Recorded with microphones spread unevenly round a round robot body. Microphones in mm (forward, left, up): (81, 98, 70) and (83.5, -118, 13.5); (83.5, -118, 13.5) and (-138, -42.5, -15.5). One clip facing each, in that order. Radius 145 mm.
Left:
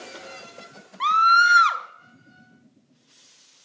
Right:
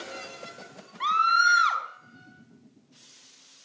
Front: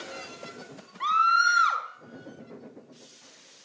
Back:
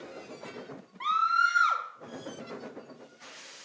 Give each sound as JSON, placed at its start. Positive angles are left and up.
{"t": 1.0, "sound": "a scream", "azimuth_deg": 65, "distance_m": 2.5}